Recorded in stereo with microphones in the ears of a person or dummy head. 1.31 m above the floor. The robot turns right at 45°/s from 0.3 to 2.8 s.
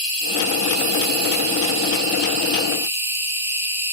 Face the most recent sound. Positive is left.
turn(degrees=-10)